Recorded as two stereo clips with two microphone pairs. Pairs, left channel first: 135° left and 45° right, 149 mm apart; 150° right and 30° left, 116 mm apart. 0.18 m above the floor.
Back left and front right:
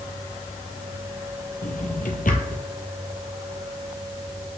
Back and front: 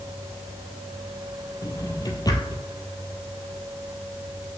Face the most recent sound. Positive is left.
turn(degrees=155)